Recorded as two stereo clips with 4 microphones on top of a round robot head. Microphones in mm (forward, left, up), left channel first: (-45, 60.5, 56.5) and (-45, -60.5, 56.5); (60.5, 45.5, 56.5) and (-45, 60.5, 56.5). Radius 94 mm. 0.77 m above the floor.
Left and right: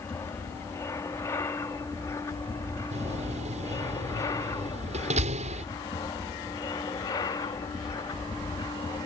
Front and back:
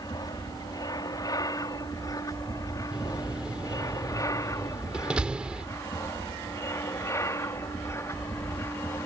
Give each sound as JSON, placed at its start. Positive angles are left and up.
{"t": 0.0, "sound": "an aircraft", "azimuth_deg": 25}
{"t": 2.9, "sound": "a door slam", "azimuth_deg": -105}